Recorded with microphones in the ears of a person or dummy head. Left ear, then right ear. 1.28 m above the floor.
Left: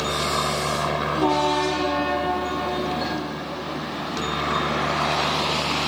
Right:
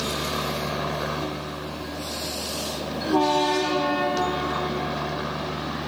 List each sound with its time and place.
0.0 s a helicopter: 25° left (ahead or behind)